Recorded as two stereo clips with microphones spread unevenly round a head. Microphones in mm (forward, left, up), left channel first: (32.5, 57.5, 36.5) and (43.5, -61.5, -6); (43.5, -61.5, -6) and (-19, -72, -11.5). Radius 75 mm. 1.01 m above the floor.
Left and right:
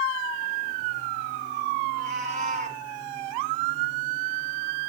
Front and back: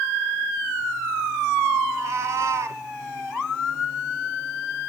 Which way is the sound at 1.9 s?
140° right.